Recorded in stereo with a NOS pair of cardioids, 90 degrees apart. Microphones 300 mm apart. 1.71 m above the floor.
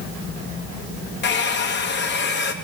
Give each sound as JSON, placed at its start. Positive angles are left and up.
{"t": 1.2, "sound": "a hair dryer", "azimuth_deg": 35, "distance_m": 1.3}